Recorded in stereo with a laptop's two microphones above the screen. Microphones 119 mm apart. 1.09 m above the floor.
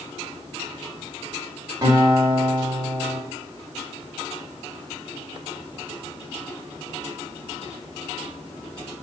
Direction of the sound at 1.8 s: 30° right (ahead or behind).